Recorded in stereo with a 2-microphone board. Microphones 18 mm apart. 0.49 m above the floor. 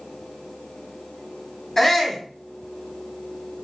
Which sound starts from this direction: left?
A shout, at 1.8 s.